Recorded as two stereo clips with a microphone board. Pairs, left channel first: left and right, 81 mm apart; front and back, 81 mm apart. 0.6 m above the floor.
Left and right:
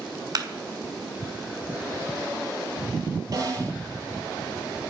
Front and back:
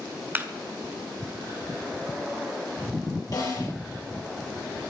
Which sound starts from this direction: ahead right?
A snare drum, at 3.3 s.